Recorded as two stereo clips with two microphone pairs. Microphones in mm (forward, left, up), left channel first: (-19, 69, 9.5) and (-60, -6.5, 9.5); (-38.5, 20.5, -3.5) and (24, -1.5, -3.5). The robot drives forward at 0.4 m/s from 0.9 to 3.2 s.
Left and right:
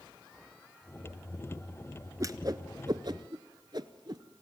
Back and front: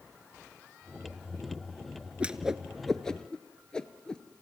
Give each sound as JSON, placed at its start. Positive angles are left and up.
{"t": 2.2, "sound": "a whoosh", "azimuth_deg": -85, "distance_m": 0.7}